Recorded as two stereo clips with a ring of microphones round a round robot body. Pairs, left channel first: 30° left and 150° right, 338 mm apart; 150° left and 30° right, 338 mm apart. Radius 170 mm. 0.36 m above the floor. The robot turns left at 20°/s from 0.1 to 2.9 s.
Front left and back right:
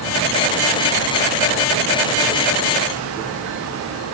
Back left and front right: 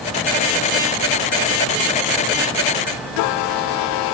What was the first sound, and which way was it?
Only background noise.